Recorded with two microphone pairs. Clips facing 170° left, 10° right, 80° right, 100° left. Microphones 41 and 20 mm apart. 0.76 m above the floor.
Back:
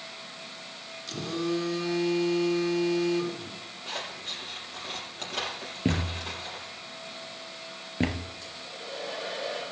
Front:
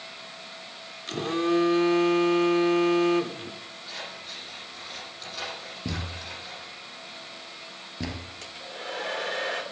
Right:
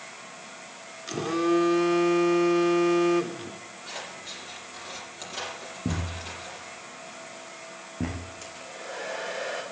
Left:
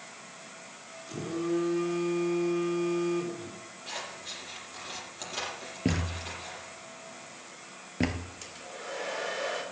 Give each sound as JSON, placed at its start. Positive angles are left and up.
{"t": 1.1, "sound": "a phone buzzing", "azimuth_deg": -60, "distance_m": 1.0}
{"t": 3.9, "sound": "scissors", "azimuth_deg": -175, "distance_m": 6.5}
{"t": 5.8, "sound": "a thud", "azimuth_deg": 120, "distance_m": 1.7}
{"t": 8.4, "sound": "a hair dryer", "azimuth_deg": 15, "distance_m": 2.5}